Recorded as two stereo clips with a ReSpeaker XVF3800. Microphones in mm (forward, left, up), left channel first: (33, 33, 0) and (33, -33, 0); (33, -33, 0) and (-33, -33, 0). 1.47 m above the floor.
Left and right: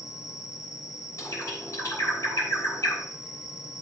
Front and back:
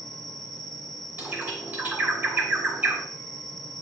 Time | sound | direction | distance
0.0 | an insect | 85° left | 0.9 m
1.2 | a bird | 120° left | 3 m